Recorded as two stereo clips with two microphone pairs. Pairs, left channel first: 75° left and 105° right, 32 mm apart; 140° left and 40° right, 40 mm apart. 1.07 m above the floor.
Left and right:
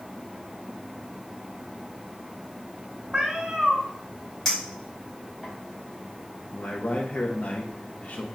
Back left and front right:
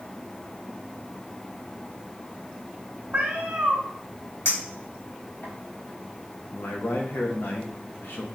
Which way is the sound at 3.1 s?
60° right.